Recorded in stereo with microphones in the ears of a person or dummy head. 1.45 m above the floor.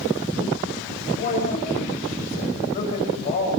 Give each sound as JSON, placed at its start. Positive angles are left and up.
{"t": 1.1, "sound": "a man speaking", "side_deg": 40, "distance_m": 8.5}